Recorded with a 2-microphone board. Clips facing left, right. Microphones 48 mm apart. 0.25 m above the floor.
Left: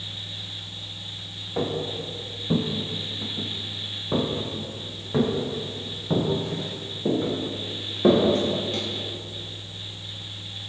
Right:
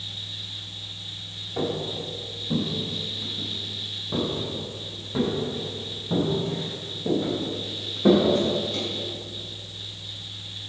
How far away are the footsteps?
About 1.5 m.